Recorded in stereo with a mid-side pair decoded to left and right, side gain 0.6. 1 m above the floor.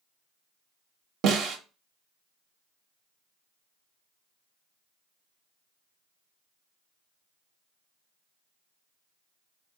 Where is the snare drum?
60° right, 0.7 m.